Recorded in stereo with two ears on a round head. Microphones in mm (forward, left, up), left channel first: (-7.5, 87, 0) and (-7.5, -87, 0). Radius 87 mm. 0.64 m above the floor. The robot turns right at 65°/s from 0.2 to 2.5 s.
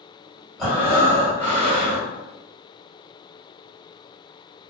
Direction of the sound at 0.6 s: Straight behind.